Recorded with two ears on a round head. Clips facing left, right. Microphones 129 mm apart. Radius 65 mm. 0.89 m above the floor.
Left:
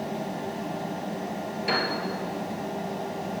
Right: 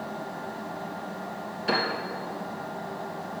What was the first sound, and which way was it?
A piano, 15° left (ahead or behind).